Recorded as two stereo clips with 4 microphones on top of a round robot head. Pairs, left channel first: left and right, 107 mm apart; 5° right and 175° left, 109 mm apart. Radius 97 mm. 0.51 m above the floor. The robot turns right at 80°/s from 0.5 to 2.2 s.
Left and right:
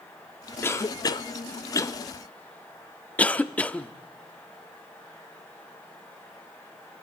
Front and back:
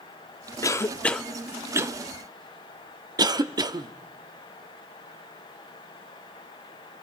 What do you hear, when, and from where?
0.6 s a cough: 35° left, 1.0 m; by 3.9 s 160° left, 1.0 m